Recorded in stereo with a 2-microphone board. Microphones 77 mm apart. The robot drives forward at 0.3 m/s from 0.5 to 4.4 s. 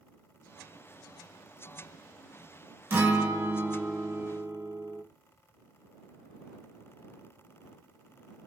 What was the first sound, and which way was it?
A guitar, 25° right (ahead or behind).